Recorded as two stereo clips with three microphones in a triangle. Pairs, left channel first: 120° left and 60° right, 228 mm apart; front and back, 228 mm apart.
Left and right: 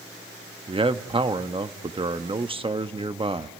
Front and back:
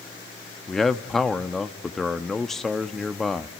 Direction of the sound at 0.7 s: 85° right.